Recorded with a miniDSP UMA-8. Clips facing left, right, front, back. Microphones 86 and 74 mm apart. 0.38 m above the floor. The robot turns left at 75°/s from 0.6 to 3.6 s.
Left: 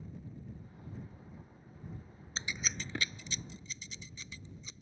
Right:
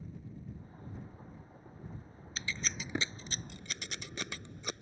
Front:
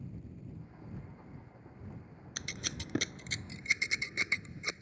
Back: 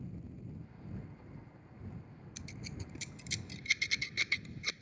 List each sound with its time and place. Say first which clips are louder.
2.4 s scissors: even, front 5 dB; 25° left; by 4.8 s 65° right